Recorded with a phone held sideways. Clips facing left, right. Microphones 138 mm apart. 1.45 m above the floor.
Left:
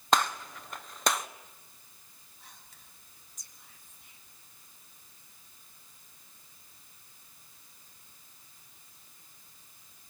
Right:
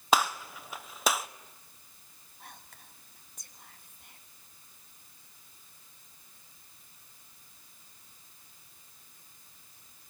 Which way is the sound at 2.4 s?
65° right (ahead or behind).